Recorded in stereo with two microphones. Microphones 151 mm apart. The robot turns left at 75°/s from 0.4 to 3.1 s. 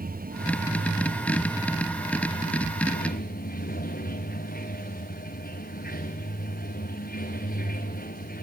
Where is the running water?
70° right, 2 m; by 8.4 s 90° left, 2 m.